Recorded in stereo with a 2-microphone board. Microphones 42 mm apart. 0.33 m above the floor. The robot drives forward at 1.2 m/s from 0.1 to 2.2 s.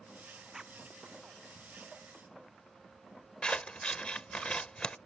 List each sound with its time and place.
0.5 s a zipper: 15° right (ahead or behind)
3.4 s scissors: 25° left (ahead or behind)